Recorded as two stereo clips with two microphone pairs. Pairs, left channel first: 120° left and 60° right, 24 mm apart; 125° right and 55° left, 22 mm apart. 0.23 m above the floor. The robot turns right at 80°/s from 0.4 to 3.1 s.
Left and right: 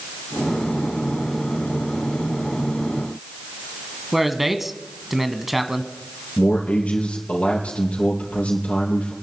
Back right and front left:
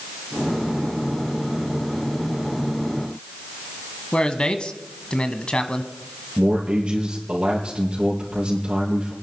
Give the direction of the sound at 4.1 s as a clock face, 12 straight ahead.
5 o'clock.